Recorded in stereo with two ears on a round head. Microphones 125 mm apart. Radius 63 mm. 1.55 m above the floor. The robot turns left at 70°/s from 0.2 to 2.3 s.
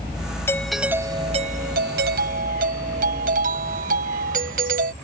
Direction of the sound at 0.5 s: 15° left.